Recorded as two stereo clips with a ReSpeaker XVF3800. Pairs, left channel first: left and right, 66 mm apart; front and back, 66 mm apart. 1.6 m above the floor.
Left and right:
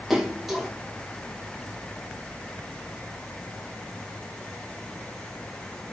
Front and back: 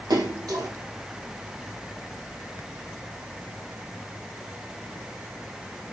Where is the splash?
175° right, 3 m.